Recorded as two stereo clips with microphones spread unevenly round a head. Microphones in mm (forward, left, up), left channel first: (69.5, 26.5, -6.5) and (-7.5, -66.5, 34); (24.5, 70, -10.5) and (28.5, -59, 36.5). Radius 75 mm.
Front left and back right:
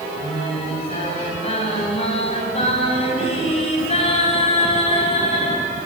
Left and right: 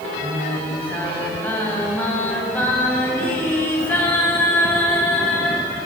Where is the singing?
10° left, 5.5 m.